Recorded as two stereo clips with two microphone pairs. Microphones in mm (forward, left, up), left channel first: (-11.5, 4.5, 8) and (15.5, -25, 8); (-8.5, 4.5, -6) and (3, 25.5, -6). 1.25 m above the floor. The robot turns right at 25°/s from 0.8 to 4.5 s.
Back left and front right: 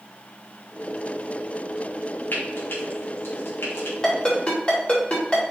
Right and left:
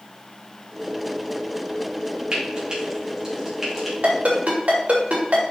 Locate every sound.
2.3 s frying: 100° left, 3 m; by 3.9 s 140° left, 3 m
4.0 s a ringtone: 60° left, 3.5 m; by 5.4 s 75° left, 3.5 m